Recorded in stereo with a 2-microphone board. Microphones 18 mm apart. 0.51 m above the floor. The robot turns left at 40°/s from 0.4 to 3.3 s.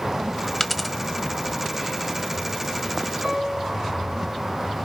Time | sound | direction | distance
0.6 | a dropped coin | 10° left (ahead or behind) | 0.7 m
3.2 | a piano | 40° right (ahead or behind) | 2.5 m